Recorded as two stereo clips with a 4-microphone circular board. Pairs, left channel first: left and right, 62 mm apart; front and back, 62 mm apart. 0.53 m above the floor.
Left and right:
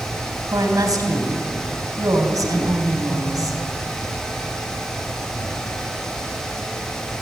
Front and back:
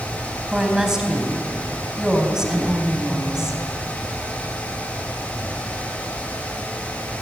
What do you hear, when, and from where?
0.5 s a woman speaking: 100° right, 4 m